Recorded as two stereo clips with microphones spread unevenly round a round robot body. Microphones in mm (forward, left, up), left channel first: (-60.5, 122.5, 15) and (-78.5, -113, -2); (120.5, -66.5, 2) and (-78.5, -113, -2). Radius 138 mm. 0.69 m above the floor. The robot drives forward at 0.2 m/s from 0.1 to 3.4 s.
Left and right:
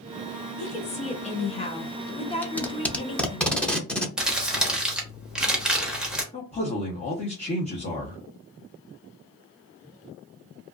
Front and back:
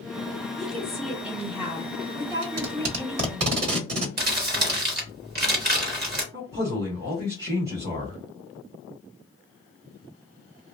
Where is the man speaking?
145° left, 0.9 m.